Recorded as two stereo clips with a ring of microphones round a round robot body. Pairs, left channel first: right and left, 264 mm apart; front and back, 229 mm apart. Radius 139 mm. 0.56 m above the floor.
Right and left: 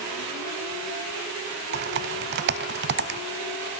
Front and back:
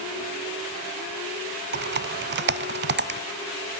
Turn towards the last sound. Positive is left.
turn(degrees=140)